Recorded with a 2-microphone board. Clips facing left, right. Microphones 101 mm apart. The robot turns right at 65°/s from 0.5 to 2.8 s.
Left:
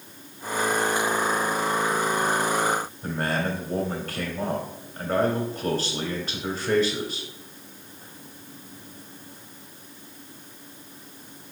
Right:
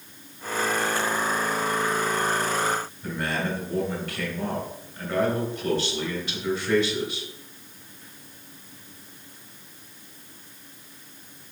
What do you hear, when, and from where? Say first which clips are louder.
3.0 s a man speaking: left 2 dB; 45° left (ahead or behind), 1.9 m